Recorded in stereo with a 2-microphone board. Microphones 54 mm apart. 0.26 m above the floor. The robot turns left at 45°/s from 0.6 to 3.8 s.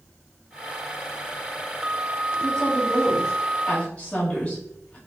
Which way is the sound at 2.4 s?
15° left (ahead or behind).